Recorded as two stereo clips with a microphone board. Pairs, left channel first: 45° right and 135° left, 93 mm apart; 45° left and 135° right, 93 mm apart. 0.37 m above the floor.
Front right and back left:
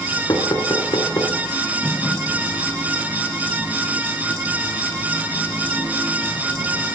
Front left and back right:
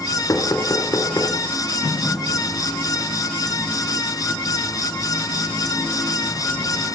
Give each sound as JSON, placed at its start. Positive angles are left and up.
{"t": 0.3, "sound": "knocking", "azimuth_deg": -5, "distance_m": 4.0}